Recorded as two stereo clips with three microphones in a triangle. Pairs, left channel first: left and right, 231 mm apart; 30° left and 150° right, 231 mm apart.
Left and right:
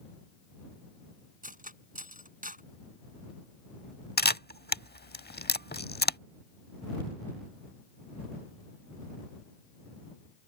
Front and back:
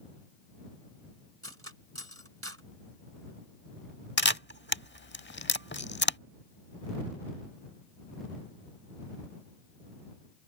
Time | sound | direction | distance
1.4 | cutlery clinking | 140° right | ?
4.2 | a camera shutter | 55° left | ?